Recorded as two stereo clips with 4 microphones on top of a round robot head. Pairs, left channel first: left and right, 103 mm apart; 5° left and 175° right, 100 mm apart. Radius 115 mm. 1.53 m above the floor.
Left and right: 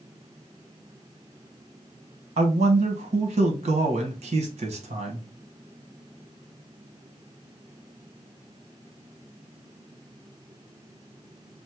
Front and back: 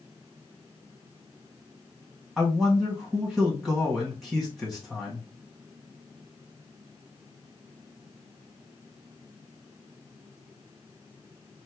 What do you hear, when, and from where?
2.4 s a man speaking: 85° right, 1.2 m